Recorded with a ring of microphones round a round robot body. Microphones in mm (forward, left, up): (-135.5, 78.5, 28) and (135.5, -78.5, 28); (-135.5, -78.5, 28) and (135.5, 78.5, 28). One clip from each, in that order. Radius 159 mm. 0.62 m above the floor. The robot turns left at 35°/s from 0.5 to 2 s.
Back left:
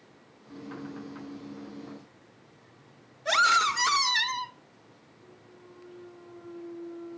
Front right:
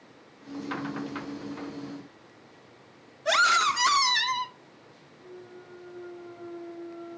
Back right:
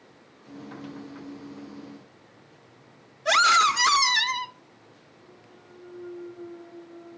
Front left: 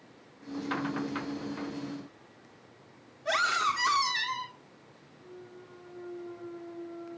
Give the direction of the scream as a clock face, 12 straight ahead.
4 o'clock.